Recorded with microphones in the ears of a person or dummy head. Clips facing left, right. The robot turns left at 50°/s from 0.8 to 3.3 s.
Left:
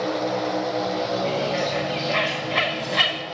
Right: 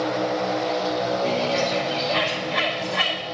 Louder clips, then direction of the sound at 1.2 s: Right 1 dB; 5° right (ahead or behind).